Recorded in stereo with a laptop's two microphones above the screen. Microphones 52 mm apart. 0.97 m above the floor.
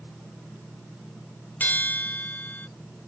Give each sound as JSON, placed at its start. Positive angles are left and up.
{"t": 1.6, "sound": "a bell", "side_deg": 35}